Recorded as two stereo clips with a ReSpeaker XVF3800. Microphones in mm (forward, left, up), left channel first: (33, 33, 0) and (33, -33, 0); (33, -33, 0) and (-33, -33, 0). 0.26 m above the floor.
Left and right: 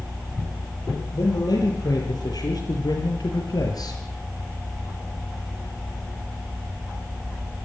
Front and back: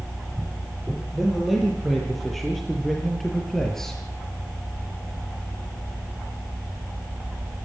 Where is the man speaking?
90° left, 8.5 m; by 4.0 s 85° left, 5 m.